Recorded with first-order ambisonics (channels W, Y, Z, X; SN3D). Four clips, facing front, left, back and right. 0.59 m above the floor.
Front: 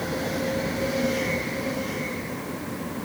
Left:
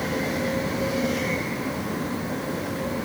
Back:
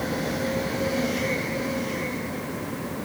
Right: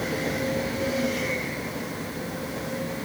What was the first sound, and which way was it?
Only background noise.